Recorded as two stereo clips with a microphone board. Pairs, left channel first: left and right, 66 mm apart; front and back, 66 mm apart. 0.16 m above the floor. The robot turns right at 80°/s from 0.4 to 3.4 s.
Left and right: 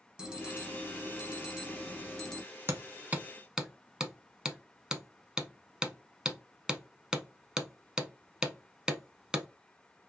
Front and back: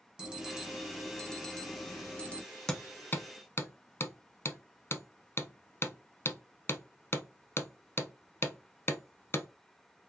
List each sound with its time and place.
0.2 s an alarm: 135° right, 1.0 m; by 2.4 s 30° left, 1.0 m
2.7 s hammering: 75° right, 0.6 m; by 9.5 s 15° right, 0.6 m